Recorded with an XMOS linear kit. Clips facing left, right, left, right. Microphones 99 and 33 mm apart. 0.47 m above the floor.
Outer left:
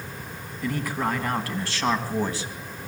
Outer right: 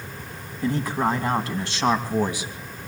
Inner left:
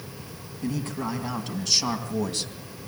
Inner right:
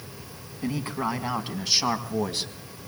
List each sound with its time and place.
0.6 s a man speaking: 25° right (ahead or behind), 4 m; by 2.5 s 15° right (ahead or behind), 3 m